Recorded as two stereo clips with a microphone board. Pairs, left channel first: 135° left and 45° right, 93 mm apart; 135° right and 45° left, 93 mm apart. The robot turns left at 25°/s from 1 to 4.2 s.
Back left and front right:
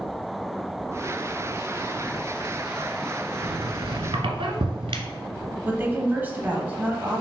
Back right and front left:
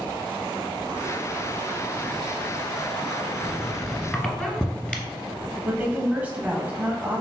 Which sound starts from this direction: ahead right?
A squeak, at 3.4 s.